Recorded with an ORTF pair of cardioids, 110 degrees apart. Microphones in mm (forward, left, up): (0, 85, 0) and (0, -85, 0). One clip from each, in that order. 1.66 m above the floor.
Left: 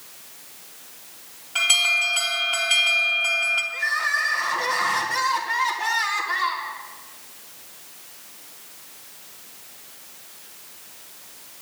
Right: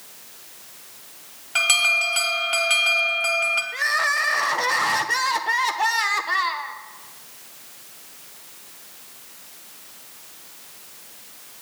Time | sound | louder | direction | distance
1.6 | an alarm | right 1 dB | 45° right | 2.5 m
3.7 | crying | right 2 dB | 65° right | 1.2 m